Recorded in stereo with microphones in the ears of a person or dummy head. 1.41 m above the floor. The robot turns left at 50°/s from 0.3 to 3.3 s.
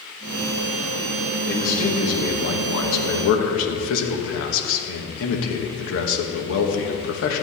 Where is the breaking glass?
I don't hear breaking glass.